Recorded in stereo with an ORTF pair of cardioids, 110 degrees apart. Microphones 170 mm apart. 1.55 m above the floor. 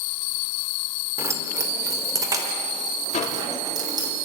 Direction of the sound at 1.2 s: 15° right.